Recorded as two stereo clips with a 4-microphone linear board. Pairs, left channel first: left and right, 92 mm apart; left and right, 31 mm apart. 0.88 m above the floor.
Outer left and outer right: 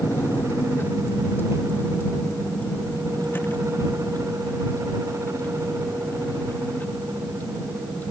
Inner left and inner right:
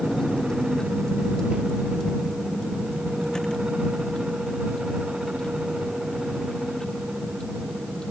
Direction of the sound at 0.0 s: 25° left (ahead or behind).